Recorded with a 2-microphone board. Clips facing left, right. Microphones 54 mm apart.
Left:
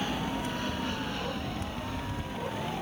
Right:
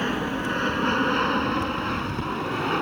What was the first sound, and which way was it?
An aircraft, 45° right (ahead or behind).